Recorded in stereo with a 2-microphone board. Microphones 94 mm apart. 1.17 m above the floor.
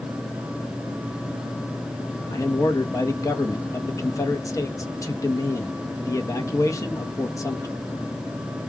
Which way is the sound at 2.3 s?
35° left (ahead or behind).